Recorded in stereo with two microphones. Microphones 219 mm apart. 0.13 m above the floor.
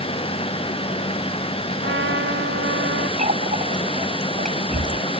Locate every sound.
1.8 s a trumpet: 60° right (ahead or behind)
3.2 s a running tap: 35° right (ahead or behind)